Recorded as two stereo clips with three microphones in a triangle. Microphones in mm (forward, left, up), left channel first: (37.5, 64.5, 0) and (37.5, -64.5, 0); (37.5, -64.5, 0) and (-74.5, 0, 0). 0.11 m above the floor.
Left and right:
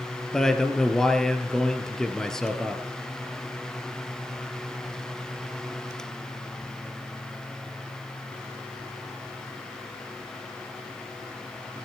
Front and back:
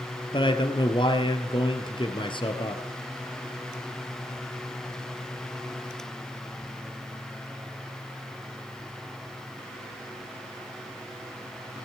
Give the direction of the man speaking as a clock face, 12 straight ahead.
12 o'clock.